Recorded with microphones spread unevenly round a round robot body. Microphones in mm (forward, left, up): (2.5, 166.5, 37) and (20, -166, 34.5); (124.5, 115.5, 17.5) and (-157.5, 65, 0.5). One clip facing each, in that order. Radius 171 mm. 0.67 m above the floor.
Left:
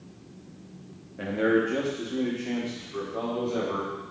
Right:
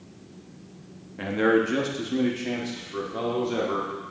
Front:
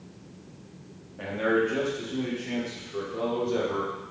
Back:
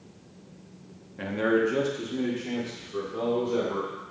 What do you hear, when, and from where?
1.2 s a man speaking: 150° right, 1.0 m; by 3.9 s 105° right, 2.5 m